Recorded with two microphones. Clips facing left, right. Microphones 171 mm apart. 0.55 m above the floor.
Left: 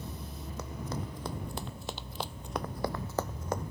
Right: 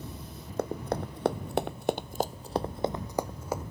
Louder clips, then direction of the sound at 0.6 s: Right 8 dB; 55° right (ahead or behind).